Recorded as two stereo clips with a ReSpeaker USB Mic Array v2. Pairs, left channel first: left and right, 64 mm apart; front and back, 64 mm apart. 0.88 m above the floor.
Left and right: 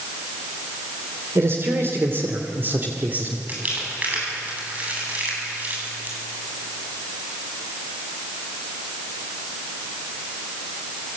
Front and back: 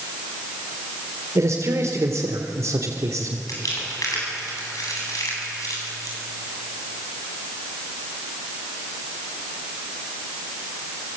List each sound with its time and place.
1.4 s a man speaking: 140° right, 3 m; by 3.4 s 150° right, 2 m
3.5 s crumpling: 25° right, 8.5 m